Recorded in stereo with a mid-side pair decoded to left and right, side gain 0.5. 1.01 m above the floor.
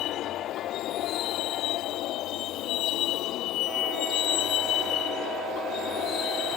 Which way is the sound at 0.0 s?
70° left.